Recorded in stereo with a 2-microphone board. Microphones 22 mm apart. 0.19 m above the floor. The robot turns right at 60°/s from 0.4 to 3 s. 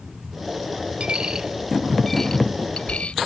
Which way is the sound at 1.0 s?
55° right (ahead or behind).